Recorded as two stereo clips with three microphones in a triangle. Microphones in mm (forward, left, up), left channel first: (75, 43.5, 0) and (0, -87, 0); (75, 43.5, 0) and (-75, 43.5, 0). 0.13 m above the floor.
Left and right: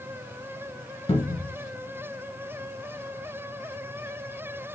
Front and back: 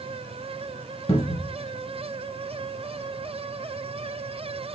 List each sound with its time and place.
1.1 s a cupboard door: 25° left, 0.6 m